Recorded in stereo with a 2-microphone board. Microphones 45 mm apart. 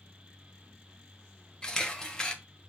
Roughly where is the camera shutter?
Centre.